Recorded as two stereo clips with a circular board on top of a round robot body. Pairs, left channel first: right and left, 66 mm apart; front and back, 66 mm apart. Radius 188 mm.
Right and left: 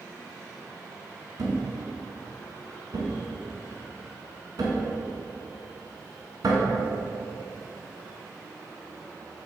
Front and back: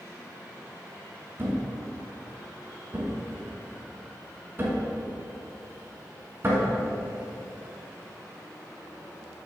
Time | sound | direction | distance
1.4 | a thud | 120° left | 1.1 m